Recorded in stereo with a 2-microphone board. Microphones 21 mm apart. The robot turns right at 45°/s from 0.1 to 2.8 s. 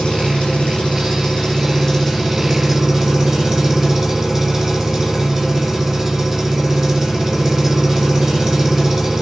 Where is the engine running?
75° left, 1.0 m; by 9.2 s 160° right, 1.0 m.